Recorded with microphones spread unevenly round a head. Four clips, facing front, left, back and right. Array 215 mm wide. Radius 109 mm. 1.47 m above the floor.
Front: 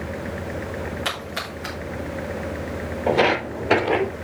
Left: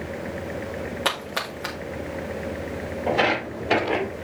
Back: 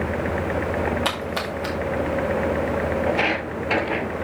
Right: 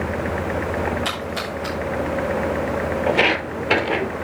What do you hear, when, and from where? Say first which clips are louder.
1.1 s a splash: right 2 dB, back 4 dB; 135° left, 2 m
3.1 s footsteps: even, front 3 dB; 30° right, 1.9 m; by 4.1 s 5° right, 2 m